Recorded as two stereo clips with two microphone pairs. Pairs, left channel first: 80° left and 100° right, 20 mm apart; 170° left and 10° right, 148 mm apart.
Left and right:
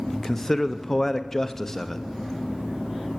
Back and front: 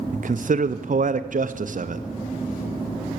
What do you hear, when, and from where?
0.1 s a man speaking: 15° left, 0.6 m